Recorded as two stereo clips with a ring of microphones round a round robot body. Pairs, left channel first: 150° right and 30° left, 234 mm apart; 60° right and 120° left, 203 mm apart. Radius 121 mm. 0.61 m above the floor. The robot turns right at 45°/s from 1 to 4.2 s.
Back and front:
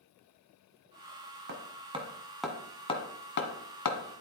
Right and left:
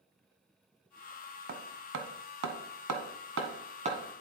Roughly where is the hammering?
Left.